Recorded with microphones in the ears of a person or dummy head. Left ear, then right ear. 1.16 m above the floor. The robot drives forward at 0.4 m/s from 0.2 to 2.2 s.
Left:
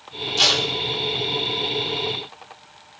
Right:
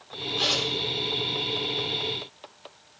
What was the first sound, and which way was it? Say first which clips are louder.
Tape being pulled: left 7 dB; 80° left.